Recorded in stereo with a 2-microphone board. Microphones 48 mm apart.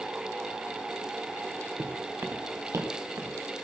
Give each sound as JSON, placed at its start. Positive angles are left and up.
{"t": 1.8, "sound": "footsteps", "side_deg": -45, "distance_m": 3.0}